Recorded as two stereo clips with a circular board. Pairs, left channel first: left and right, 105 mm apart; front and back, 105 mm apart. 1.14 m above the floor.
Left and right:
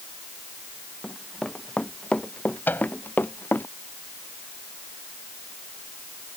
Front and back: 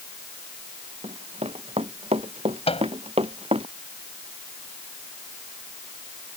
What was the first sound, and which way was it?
Running footsteps, 175° left.